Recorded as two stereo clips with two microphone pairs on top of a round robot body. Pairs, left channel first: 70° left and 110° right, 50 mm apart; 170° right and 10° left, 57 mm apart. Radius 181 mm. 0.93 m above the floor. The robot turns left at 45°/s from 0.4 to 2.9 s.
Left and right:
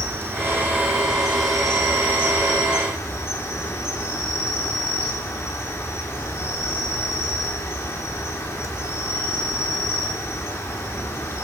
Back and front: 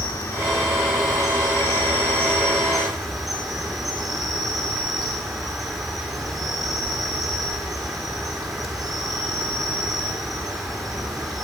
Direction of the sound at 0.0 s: 155° right.